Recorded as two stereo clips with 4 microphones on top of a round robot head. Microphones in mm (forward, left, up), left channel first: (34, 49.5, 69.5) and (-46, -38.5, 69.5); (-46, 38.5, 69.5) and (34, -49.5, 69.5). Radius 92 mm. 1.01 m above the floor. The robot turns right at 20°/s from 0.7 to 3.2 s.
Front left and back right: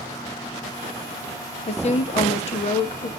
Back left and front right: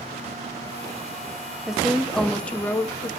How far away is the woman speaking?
About 0.5 m.